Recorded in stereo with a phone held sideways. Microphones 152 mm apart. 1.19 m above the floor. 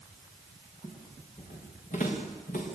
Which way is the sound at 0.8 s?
50° left (ahead or behind).